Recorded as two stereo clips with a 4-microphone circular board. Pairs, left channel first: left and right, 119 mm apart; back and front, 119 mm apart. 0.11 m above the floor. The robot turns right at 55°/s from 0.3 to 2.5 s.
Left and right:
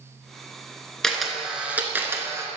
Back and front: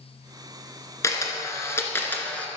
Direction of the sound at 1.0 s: 170° left.